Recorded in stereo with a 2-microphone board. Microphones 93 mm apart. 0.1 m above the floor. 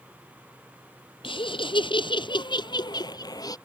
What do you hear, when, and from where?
1.2 s laughter: 65° left (ahead or behind); by 3.6 s 40° left (ahead or behind)